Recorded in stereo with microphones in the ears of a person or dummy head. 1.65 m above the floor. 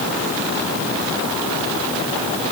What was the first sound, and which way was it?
Only background noise.